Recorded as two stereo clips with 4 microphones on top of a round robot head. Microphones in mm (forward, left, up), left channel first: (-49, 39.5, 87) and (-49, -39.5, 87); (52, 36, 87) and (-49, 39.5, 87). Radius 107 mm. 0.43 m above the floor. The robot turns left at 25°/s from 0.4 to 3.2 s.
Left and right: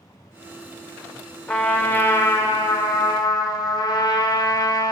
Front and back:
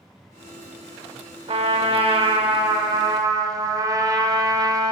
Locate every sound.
1.5 s a trumpet: 165° left, 0.9 m; by 4.9 s 125° left, 0.9 m